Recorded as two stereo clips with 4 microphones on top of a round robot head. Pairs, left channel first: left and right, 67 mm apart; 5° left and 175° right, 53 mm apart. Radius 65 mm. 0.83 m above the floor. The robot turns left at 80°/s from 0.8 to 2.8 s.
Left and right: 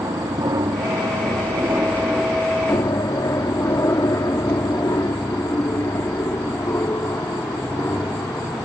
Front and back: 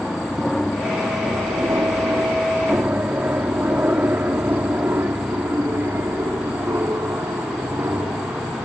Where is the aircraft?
80° right; by 8.7 s 150° left.